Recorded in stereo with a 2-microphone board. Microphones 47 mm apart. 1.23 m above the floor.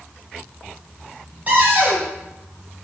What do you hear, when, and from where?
1.5 s a cupboard door: 35° right (ahead or behind), 1.9 m